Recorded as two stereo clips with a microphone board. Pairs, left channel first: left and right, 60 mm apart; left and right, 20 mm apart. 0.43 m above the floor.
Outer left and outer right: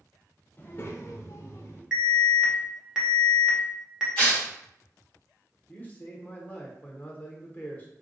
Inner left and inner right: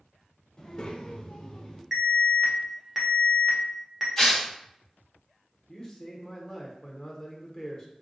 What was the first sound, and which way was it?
A child speaking, 30° left (ahead or behind).